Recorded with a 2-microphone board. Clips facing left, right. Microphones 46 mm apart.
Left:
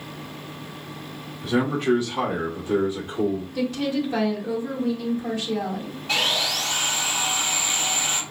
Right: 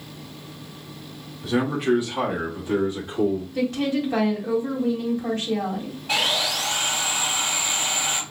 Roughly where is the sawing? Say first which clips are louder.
Even; centre.